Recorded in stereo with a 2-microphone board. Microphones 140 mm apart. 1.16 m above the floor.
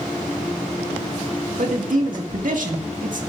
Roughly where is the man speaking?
Right.